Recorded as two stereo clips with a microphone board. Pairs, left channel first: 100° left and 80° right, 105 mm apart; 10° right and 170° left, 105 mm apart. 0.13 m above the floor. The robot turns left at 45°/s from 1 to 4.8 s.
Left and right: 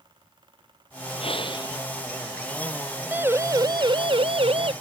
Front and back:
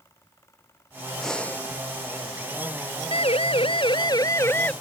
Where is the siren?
5° right; by 4.7 s 85° right.